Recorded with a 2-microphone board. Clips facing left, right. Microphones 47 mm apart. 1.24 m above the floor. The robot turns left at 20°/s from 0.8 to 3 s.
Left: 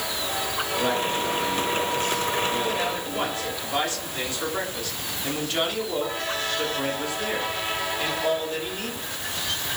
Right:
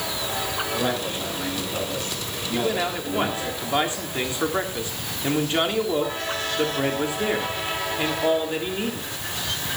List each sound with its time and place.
0.7 s a man speaking: 25° right, 7.5 m; by 3.5 s 70° right, 7.5 m
2.5 s a man speaking: 30° right (ahead or behind), 3 m; by 9.1 s 25° right (ahead or behind), 3 m